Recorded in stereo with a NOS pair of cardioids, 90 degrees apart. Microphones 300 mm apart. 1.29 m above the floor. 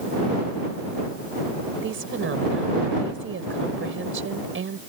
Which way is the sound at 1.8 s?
45° right.